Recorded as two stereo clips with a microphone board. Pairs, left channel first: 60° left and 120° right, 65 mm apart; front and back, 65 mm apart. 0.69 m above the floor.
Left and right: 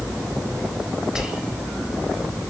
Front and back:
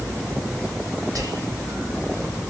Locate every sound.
1.1 s whispering: 160° left, 5 m